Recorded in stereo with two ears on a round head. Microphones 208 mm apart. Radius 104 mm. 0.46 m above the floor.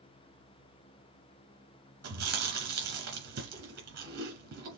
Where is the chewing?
45° right (ahead or behind), 2.5 m.